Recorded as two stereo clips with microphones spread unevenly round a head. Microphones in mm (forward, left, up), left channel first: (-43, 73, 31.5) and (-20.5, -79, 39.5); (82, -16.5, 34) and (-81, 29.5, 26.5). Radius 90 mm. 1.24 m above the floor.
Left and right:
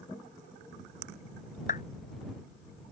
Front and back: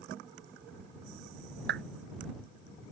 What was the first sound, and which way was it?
A clap, 140° left.